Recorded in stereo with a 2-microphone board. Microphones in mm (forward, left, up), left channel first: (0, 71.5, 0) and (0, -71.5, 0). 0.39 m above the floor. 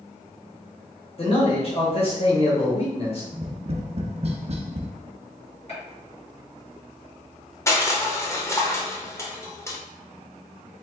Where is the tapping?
45° right (ahead or behind), 0.5 m.